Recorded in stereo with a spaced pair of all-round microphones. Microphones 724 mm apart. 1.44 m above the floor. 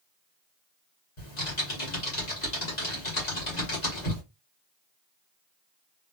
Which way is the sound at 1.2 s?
70° left (ahead or behind).